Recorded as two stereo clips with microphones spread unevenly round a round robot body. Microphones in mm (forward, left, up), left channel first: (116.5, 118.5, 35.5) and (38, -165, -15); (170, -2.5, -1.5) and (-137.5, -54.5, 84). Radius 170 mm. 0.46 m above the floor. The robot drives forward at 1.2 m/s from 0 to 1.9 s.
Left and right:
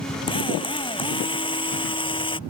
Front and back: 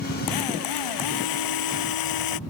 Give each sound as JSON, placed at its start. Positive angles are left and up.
{"t": 0.3, "sound": "a drill", "azimuth_deg": 0}